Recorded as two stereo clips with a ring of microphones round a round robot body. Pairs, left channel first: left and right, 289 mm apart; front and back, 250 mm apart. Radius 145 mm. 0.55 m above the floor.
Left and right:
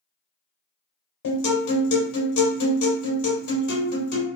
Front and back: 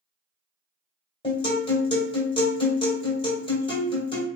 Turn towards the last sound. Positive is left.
turn(degrees=65)